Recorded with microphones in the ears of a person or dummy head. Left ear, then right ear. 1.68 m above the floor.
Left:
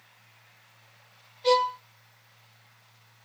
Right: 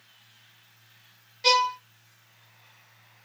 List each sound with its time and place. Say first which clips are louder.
1.4 s a violin: right 1 dB; 65° right (ahead or behind), 1.6 m